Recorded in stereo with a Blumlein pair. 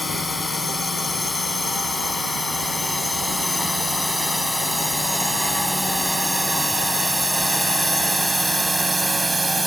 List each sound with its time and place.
0.0 s a drone: 10° left; by 9.7 s 5° right